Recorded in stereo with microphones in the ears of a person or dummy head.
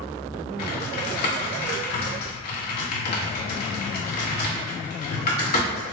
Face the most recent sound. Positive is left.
turn(degrees=55)  # may be behind; listen again after turning